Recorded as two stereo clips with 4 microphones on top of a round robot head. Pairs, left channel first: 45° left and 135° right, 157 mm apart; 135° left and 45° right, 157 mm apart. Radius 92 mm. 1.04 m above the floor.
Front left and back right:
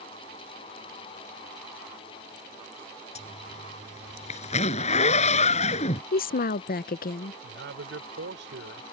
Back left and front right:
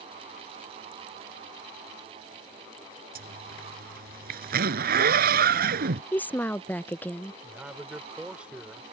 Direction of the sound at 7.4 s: 125° right.